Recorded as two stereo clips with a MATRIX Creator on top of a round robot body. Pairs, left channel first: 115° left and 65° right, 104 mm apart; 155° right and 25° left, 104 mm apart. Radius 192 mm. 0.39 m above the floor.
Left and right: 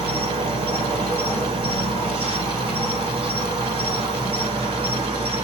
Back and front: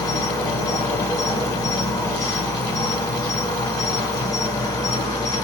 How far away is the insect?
About 1.3 m.